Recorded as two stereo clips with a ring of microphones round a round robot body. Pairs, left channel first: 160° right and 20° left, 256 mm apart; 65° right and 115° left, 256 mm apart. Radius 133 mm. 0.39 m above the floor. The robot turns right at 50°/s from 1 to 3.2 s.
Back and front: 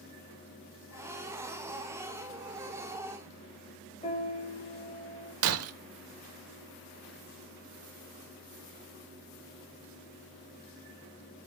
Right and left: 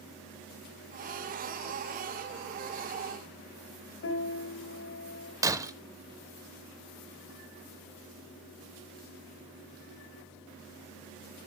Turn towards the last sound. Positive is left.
turn(degrees=35)